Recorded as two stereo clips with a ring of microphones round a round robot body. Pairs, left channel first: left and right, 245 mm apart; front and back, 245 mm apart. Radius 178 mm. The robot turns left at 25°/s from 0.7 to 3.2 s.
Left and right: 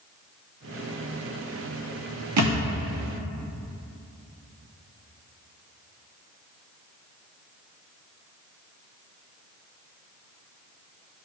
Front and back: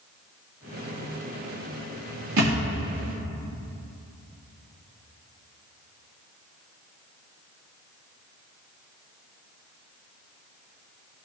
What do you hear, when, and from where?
2.4 s a thud: 125° right, 0.7 m; by 2.6 s 130° right, 0.7 m